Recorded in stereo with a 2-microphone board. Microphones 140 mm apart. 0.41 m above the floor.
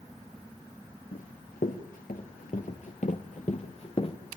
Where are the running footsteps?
80° left, 4 m; by 4.2 s 40° left (ahead or behind), 2.5 m.